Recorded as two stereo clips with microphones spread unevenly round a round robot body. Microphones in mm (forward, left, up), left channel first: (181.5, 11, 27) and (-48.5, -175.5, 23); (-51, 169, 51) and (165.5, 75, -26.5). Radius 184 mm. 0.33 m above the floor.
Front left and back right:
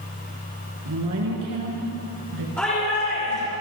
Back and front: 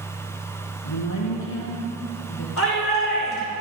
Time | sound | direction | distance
0.8 | a woman speaking | 170° left | 4 m
2.6 | a shout | 125° left | 5.5 m